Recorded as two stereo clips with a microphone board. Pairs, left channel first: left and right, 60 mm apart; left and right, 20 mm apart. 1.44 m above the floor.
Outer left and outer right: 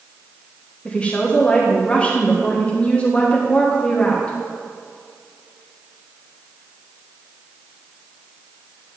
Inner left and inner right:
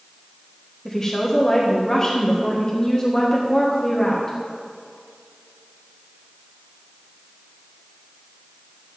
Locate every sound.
0.8 s a woman speaking: 20° left (ahead or behind), 1.6 m